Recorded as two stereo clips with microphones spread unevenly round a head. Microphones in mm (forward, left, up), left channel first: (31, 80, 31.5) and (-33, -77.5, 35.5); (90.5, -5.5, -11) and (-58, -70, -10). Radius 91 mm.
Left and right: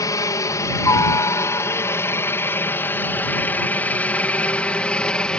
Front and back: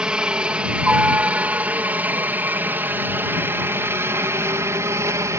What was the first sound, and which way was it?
A helicopter, 125° left.